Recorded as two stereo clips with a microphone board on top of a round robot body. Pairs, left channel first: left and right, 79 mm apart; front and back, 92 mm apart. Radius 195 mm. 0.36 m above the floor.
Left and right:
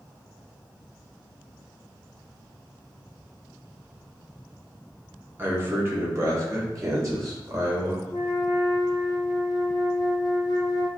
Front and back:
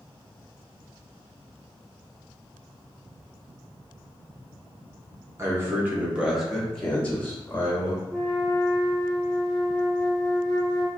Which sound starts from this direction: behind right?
A man speaking, at 5.4 s.